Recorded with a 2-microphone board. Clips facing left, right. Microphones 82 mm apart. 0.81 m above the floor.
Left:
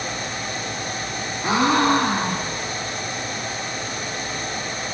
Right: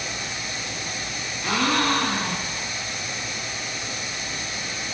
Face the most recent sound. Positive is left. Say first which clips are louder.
# left 5 dB
turn(degrees=25)  # may be behind; listen again after turning